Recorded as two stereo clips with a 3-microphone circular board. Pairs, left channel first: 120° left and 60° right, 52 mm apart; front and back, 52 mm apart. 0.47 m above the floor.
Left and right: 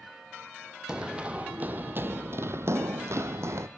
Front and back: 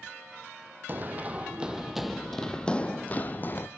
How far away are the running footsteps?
About 1.1 m.